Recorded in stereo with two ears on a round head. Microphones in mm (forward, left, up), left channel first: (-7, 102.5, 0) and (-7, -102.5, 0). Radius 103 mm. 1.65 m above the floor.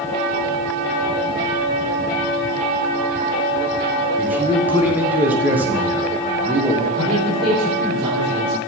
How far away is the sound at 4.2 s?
About 1.3 m.